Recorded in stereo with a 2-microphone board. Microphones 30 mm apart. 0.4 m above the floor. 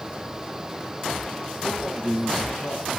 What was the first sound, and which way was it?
A man speaking, 45° left (ahead or behind).